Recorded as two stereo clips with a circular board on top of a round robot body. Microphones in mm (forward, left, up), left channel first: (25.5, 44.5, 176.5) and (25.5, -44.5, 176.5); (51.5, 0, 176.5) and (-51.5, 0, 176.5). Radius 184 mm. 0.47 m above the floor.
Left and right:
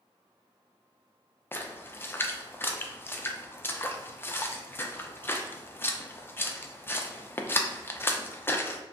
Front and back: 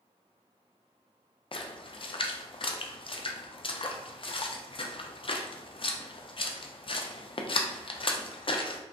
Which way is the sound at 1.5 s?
25° left.